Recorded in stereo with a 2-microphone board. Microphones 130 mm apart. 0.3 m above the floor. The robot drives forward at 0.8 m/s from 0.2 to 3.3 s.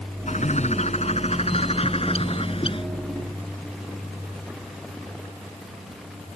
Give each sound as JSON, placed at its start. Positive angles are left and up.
{"t": 0.3, "sound": "a bird", "side_deg": 65}